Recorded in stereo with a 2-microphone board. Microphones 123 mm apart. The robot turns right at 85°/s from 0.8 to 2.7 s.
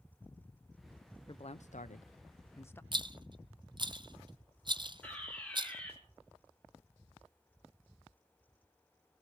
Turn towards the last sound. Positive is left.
turn(degrees=10)  # may be behind; listen again after turning